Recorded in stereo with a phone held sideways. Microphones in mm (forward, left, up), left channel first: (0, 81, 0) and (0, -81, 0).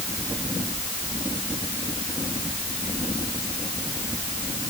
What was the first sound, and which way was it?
Only background noise.